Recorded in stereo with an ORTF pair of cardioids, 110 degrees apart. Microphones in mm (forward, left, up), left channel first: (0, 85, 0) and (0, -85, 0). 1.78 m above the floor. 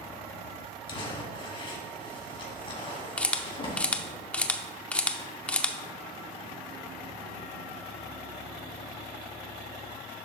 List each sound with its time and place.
0.9 s crumpling: 30° left, 2.5 m
3.2 s a camera shutter: 5° left, 0.7 m